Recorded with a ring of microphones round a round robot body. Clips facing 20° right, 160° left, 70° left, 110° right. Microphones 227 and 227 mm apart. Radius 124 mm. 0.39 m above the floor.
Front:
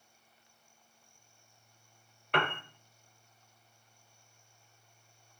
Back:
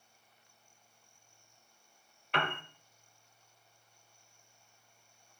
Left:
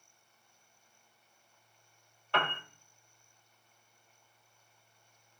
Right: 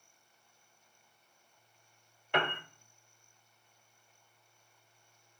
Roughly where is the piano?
Ahead right.